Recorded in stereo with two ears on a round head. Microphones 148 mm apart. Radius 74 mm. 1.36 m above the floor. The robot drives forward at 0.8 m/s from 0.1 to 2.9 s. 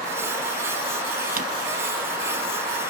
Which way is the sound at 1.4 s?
55° right (ahead or behind).